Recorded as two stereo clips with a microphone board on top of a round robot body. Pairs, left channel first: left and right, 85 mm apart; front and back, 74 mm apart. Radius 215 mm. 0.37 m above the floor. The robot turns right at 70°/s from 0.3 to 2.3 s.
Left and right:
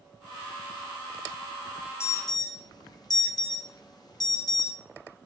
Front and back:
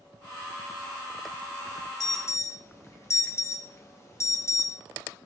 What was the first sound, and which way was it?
An alarm, 30° left.